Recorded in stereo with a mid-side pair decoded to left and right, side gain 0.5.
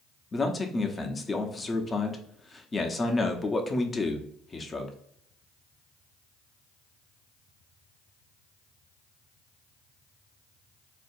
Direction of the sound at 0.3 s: 25° left.